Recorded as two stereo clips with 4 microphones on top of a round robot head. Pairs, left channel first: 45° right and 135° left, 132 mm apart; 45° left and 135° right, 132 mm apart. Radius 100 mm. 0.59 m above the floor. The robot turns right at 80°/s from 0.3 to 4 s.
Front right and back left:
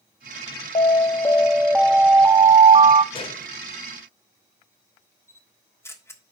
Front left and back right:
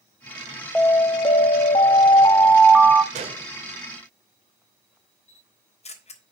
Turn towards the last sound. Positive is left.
turn(degrees=25)